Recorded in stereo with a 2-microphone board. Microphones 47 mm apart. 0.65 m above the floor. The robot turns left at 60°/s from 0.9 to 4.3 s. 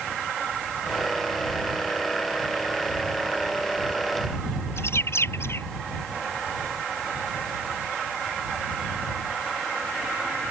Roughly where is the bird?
Left.